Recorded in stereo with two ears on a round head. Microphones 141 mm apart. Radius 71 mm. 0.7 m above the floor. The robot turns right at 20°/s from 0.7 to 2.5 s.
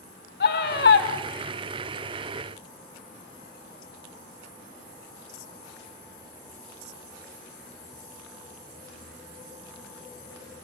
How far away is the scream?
About 1.9 m.